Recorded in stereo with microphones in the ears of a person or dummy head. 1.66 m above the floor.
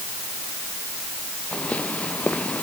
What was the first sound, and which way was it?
Footsteps, 5° left (ahead or behind).